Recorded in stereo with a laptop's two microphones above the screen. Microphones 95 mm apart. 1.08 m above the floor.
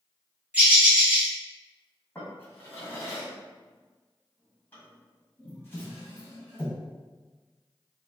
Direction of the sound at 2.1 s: 20° left (ahead or behind).